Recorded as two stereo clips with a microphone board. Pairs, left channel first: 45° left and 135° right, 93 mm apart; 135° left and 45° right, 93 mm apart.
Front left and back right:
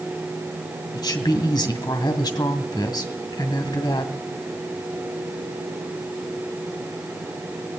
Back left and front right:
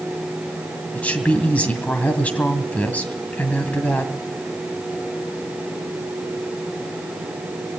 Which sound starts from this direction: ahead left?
A woman speaking, at 0.9 s.